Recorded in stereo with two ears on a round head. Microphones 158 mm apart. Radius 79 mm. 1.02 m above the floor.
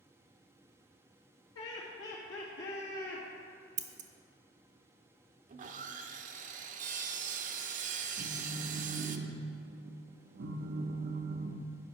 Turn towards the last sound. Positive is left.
turn(degrees=-65)  # may be behind; listen again after turning